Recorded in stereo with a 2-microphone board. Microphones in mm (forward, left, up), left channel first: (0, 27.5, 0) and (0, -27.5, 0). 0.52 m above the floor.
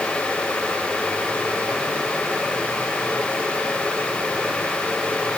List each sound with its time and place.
Only background noise.